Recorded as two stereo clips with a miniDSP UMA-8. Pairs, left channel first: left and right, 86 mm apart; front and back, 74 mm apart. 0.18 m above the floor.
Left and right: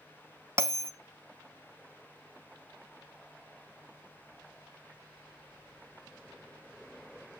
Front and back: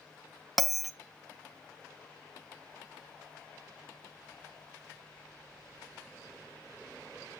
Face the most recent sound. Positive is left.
turn(degrees=-90)